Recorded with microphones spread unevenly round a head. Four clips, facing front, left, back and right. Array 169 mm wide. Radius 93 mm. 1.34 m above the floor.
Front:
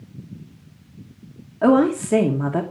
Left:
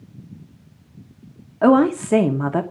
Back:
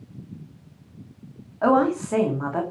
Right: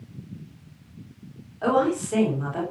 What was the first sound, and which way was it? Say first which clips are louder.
A woman speaking: left 7 dB, front 3 dB; 75° left.